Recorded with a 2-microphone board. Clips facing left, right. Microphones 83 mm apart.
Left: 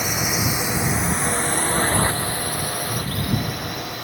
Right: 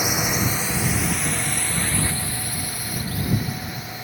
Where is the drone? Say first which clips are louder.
Even; 10° right (ahead or behind); by 4.0 s 65° left (ahead or behind).